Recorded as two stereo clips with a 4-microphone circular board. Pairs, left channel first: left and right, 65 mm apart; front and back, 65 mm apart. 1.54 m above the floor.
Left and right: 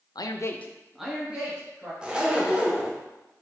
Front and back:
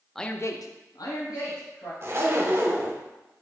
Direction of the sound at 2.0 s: 160° right.